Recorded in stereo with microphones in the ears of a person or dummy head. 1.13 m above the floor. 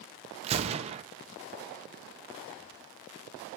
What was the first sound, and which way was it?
A gunshot, 30° right (ahead or behind).